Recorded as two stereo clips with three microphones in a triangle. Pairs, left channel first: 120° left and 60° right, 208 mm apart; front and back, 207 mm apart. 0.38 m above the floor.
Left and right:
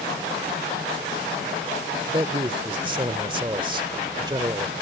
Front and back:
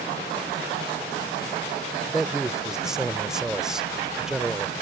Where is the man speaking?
95° right.